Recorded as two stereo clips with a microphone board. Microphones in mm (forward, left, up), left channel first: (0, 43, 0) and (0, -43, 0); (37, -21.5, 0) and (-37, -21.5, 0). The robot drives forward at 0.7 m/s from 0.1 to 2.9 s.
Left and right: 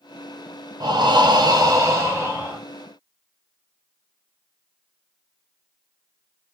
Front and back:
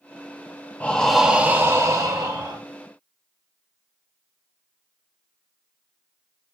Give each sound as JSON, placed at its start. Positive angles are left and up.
{"t": 0.8, "sound": "breathing", "azimuth_deg": -65, "distance_m": 0.7}